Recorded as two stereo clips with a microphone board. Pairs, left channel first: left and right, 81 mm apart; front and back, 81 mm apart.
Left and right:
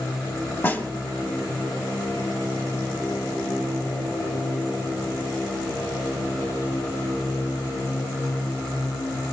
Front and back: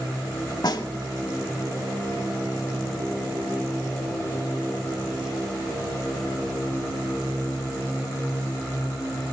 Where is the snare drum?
25° left, 0.7 m.